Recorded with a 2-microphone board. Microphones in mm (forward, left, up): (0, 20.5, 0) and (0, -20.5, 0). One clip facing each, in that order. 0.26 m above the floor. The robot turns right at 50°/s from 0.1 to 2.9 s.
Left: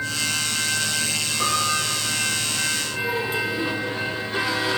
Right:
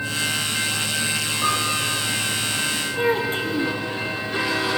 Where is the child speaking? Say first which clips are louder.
Right 4 dB; 40° right (ahead or behind), 3 m.